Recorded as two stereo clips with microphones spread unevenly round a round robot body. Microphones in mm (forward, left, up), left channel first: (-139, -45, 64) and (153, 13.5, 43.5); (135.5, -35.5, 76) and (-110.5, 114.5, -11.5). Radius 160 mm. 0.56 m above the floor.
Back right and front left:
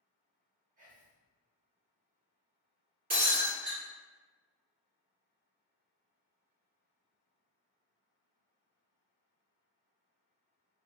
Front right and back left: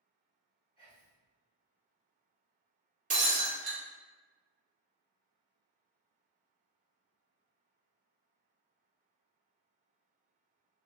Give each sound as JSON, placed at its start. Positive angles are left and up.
{"t": 0.8, "sound": "whispering", "azimuth_deg": 50, "distance_m": 1.4}
{"t": 3.1, "sound": "breaking glass", "azimuth_deg": 75, "distance_m": 1.2}